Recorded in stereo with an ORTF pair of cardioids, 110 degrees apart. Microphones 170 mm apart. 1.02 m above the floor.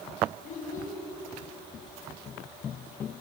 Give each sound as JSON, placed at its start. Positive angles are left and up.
{"t": 0.4, "sound": "a child speaking", "azimuth_deg": 55, "distance_m": 7.5}